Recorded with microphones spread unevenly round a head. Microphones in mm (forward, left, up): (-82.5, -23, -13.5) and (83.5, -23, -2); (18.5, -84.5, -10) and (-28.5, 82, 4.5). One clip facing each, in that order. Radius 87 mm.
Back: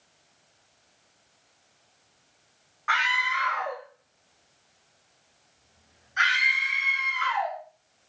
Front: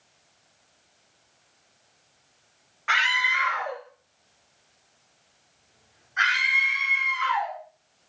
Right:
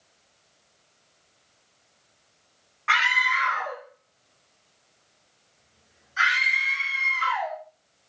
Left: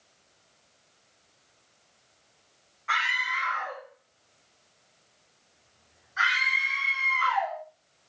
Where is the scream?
60° right, 1.7 m; by 7.6 s 140° right, 3.5 m.